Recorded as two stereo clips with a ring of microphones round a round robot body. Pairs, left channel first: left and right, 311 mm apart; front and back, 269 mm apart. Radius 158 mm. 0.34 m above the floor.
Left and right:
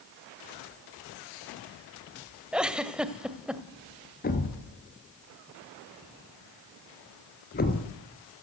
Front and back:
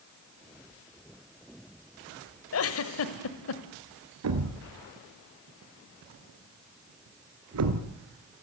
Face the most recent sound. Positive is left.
turn(degrees=155)